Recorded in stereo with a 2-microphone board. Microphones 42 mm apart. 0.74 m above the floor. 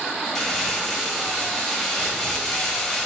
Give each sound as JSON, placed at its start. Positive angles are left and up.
{"t": 0.3, "sound": "crumpling", "side_deg": 15, "distance_m": 1.3}